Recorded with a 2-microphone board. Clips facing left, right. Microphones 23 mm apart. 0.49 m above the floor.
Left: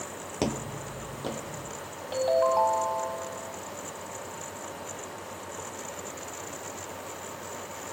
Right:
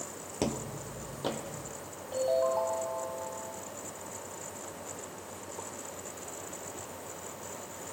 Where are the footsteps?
20° left (ahead or behind), 0.5 m; by 1.7 s 30° right (ahead or behind), 1.2 m.